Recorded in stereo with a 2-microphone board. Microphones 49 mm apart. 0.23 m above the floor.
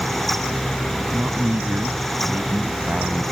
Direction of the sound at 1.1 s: 35° right (ahead or behind).